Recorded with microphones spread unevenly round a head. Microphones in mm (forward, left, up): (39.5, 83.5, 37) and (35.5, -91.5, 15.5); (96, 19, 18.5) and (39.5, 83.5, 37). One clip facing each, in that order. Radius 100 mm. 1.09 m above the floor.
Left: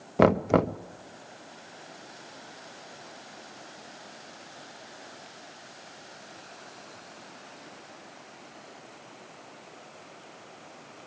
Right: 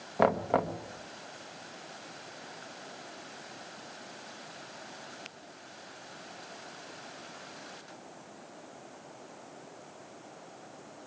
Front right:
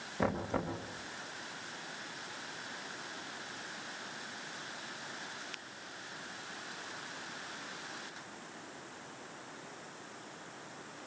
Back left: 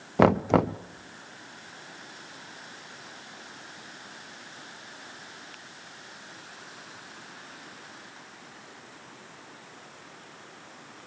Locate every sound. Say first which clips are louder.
0.2 s knocking: left 6 dB, back left 14 dB; 135° left, 0.6 m